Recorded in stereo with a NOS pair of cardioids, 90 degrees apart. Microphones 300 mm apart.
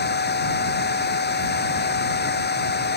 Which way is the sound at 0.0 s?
35° left.